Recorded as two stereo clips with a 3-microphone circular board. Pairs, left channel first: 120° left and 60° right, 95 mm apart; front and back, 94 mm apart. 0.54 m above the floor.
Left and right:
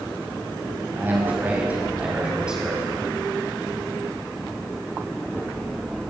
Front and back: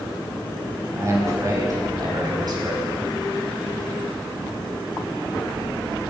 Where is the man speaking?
120° right, 4 m; by 2.9 s 145° right, 4.5 m.